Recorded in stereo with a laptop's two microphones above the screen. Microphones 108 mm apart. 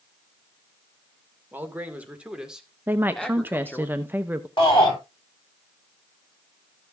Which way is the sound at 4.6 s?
45° left (ahead or behind).